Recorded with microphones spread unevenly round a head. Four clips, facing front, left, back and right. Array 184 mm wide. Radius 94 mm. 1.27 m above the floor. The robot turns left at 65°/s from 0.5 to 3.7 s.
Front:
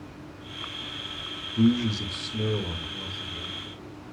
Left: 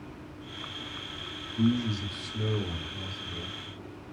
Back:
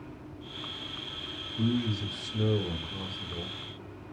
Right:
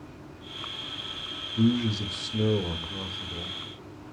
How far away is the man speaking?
About 2 m.